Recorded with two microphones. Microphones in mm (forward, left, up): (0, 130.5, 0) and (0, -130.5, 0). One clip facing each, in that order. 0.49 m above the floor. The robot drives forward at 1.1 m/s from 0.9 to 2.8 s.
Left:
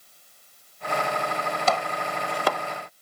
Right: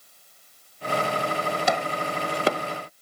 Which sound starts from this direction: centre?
Chopping, at 1.7 s.